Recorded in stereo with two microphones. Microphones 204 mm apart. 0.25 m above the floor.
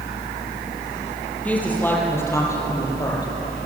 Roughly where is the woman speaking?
Centre.